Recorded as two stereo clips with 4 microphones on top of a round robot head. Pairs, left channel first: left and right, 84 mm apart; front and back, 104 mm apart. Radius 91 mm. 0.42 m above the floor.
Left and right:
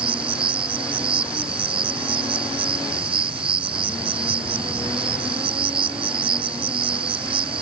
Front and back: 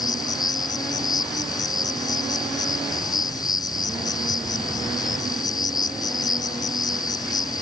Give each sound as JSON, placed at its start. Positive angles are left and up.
{"t": 0.0, "sound": "an insect", "azimuth_deg": -65}